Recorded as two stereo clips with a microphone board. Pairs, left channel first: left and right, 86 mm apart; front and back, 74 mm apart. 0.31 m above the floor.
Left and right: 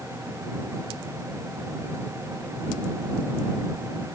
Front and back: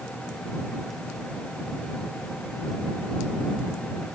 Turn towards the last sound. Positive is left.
No sound to turn to.